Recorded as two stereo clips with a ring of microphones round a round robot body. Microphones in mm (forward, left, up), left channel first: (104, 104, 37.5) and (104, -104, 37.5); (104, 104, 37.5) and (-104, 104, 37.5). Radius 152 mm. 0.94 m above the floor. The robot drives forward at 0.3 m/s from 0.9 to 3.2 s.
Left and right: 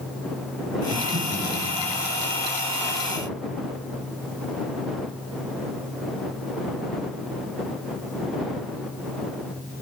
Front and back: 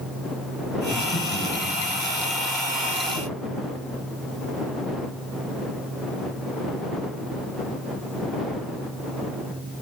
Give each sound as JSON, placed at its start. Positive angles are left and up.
{"t": 0.9, "sound": "breathing", "azimuth_deg": -50, "distance_m": 6.5}